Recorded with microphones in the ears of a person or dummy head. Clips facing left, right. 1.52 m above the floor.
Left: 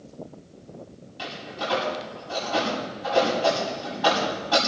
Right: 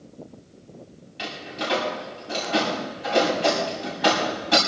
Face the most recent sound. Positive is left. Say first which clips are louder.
# right 1 dB
turn(degrees=-25)  # may be behind; listen again after turning